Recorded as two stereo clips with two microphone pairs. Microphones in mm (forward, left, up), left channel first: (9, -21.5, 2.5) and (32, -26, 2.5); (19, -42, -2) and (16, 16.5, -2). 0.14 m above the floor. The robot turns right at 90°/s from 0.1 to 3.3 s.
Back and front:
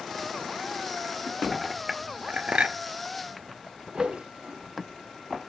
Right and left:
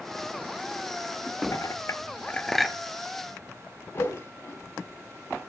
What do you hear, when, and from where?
1.5 s a clink: 100° right, 1.3 m; by 2.8 s 15° left, 1.3 m
3.9 s a whoosh: 45° right, 3.5 m